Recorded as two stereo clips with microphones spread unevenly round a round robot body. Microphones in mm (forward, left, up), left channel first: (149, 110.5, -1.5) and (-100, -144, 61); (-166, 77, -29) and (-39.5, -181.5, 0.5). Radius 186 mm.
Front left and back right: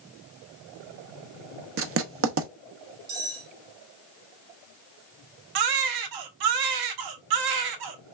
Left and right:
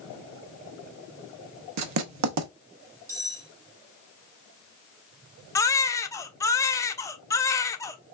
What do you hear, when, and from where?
1.8 s writing: 80° right, 0.8 m
3.1 s cutlery clinking: 105° right, 3 m
5.5 s a baby crying: 165° right, 0.8 m